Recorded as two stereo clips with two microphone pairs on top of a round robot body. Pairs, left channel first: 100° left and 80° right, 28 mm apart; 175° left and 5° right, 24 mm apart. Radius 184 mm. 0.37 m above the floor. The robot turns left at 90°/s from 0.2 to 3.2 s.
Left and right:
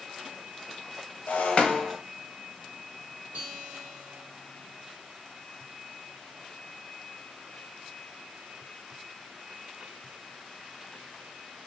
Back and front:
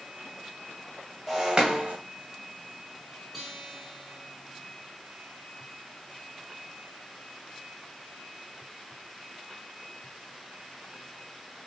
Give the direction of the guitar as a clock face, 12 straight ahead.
3 o'clock.